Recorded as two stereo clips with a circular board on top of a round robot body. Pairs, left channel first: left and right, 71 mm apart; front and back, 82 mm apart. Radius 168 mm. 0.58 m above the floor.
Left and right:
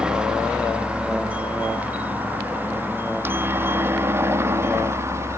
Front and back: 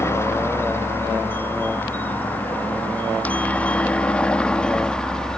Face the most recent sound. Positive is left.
turn(degrees=-80)